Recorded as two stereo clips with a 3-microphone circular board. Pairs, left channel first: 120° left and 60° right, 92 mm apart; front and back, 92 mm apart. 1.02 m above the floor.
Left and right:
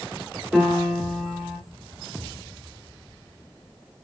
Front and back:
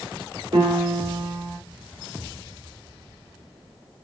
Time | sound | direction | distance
0.5 | a piano | 155° right | 3 m